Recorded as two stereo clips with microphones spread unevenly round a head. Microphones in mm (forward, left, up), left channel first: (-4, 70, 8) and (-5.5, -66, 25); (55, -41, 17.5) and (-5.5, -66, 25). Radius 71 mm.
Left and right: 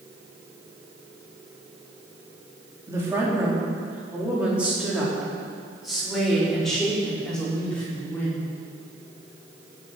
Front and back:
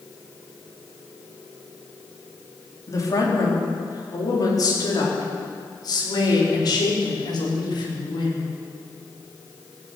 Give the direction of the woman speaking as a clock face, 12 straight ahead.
1 o'clock.